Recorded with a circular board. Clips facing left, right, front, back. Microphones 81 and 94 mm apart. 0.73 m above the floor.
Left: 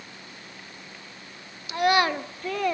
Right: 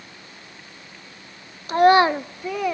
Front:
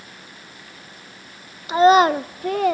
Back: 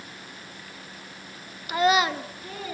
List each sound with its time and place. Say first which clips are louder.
1.7 s a child speaking: right 7 dB, front 9 dB; 60° right, 0.5 m; by 2.7 s 5° right, 0.9 m